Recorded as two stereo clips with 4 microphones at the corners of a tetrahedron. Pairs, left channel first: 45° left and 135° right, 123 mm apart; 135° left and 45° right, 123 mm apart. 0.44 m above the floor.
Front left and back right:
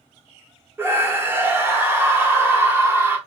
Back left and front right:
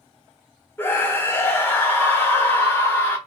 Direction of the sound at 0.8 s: Straight behind.